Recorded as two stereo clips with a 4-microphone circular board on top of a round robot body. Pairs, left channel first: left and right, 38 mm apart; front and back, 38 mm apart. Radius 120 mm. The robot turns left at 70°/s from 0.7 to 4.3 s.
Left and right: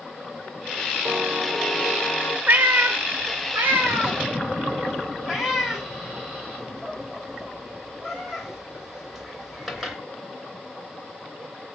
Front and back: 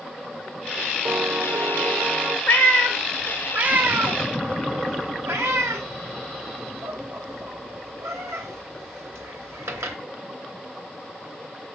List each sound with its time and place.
1.1 s a piano: 155° right, 1.3 m; by 2.4 s 115° left, 1.3 m
2.5 s a cat meowing: 45° right, 0.6 m; by 10.0 s 175° right, 0.6 m